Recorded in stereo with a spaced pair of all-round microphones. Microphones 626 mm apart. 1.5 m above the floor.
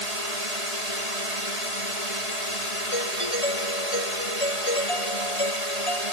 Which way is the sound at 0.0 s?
75° right (ahead or behind).